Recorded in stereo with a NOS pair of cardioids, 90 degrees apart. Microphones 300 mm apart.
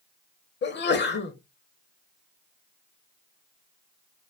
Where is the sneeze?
35° left, 0.5 m.